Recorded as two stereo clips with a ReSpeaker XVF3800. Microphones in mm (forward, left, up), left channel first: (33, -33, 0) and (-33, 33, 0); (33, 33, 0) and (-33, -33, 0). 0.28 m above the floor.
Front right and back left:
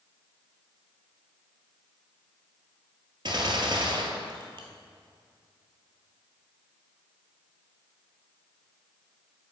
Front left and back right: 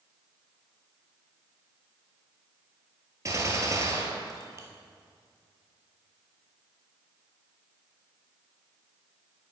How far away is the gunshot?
About 1.1 m.